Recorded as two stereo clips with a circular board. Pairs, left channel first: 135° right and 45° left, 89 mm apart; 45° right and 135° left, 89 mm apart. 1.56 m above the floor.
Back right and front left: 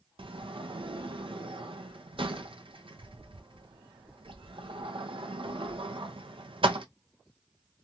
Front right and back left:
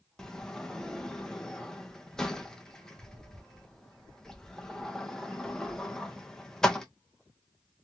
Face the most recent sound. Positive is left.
turn(degrees=40)